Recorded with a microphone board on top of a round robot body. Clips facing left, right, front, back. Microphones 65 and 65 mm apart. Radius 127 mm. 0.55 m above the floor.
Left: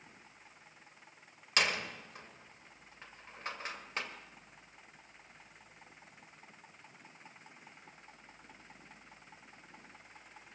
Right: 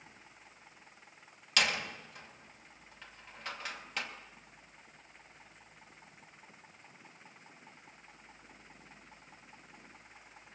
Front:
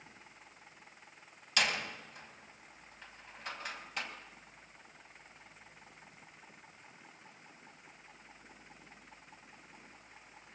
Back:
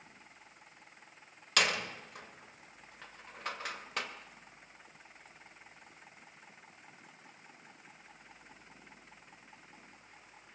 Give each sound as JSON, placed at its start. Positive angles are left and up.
{"t": 1.6, "sound": "a door slam", "azimuth_deg": 150, "distance_m": 2.5}